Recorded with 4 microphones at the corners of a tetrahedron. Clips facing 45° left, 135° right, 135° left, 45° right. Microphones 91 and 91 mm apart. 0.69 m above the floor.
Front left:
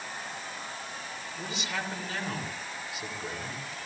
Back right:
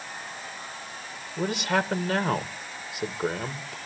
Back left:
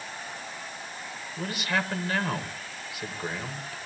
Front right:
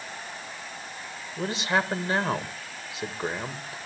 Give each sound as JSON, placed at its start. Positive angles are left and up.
{"t": 1.4, "sound": "a man speaking", "azimuth_deg": -105, "distance_m": 2.0}